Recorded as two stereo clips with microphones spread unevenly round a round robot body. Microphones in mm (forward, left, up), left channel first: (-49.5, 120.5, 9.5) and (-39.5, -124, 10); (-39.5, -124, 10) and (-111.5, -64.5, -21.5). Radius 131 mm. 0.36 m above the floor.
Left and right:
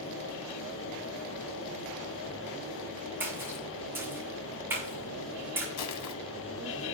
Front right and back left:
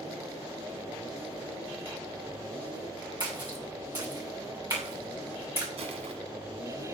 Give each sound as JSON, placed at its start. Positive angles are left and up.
{"t": 3.2, "sound": "a splash", "azimuth_deg": -170, "distance_m": 6.0}
{"t": 5.8, "sound": "crushing", "azimuth_deg": 110, "distance_m": 1.2}